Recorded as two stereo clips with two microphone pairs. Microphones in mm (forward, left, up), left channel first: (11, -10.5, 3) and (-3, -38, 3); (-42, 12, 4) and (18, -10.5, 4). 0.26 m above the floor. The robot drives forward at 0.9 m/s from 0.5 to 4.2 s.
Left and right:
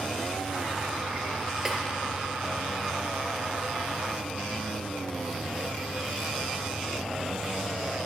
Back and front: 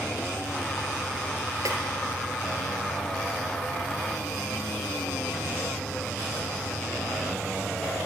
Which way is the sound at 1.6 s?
40° right.